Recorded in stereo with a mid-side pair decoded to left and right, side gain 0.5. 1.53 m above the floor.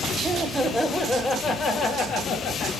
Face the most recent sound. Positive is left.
turn(degrees=75)